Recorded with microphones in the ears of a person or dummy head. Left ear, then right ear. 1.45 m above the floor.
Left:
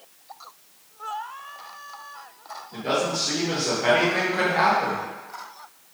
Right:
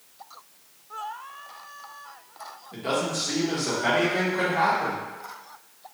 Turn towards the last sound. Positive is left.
turn(degrees=50)  # may be behind; listen again after turning